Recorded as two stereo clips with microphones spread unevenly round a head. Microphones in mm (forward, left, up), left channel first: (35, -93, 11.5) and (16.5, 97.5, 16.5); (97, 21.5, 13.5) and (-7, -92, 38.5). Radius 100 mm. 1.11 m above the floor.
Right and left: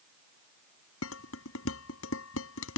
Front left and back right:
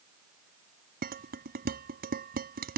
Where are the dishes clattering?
110° right.